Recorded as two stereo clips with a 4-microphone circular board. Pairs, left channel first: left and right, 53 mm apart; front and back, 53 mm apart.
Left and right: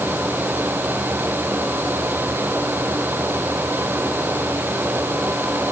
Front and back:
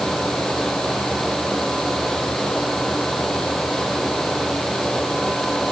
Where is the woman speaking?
I don't hear a woman speaking.